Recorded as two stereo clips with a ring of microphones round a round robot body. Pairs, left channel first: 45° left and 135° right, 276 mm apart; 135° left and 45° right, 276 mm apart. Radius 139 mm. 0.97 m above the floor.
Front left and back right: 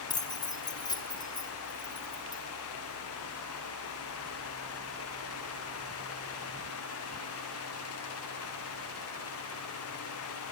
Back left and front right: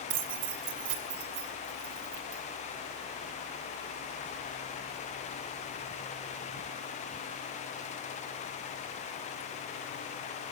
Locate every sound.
0.1 s keys jangling: 30° right, 1.5 m